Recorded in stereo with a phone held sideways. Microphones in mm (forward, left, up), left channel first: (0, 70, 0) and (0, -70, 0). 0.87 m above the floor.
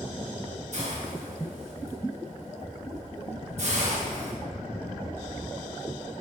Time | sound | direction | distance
0.7 | a hiss | 55° right (ahead or behind) | 4 m